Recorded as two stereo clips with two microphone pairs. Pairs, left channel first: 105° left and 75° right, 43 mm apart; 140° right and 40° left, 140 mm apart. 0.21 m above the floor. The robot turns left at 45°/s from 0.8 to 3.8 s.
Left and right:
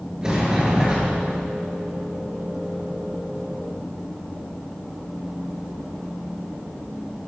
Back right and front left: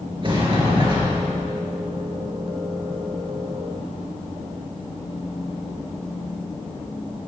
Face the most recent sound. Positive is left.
turn(degrees=-140)